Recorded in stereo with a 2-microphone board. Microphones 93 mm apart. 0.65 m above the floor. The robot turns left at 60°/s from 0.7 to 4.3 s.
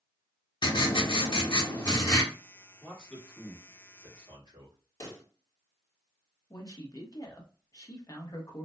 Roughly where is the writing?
Behind left.